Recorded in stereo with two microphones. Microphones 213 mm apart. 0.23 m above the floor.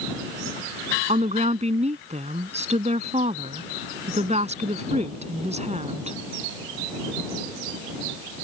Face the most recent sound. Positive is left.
turn(degrees=-30)  # may be behind; listen again after turning